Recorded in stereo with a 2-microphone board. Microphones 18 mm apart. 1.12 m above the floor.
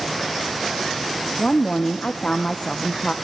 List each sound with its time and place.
1.4 s a woman speaking: 50° left (ahead or behind), 0.5 m